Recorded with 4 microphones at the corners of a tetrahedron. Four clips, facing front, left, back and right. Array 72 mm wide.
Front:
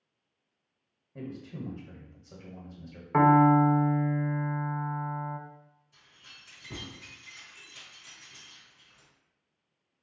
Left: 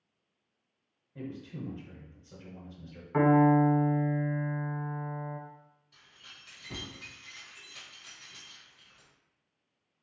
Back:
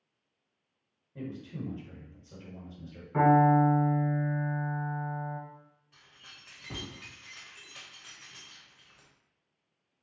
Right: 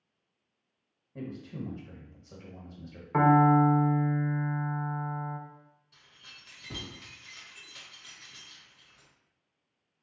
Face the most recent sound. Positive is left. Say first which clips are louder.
# even, back 1 dB
turn(degrees=-175)